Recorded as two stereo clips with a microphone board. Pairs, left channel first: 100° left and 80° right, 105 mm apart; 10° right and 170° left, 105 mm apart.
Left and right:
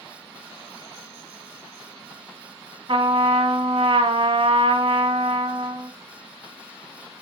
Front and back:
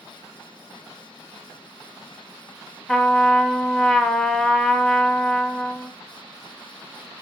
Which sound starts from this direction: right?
A trumpet, at 2.9 s.